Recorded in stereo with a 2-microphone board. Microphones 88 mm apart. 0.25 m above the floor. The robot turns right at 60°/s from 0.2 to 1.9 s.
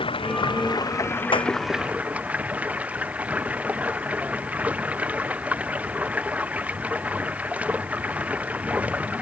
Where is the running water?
95° left; by 9.2 s 165° right.